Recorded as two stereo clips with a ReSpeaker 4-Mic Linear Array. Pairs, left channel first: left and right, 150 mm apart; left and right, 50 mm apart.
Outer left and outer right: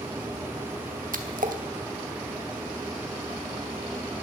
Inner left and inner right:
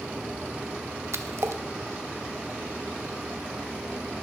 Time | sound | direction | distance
1.1 | a splash | 70° right (ahead or behind) | 0.8 m